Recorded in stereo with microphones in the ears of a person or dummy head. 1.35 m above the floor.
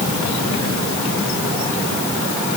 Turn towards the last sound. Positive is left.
No sound to turn to.